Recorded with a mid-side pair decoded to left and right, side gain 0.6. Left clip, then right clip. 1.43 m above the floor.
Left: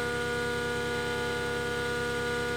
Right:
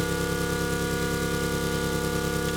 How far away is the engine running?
About 1.9 m.